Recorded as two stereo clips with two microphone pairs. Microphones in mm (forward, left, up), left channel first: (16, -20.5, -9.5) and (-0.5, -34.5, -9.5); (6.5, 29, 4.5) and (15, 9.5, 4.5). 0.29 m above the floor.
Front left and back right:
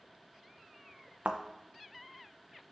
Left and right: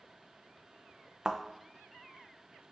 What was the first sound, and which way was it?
A thud, 130° right.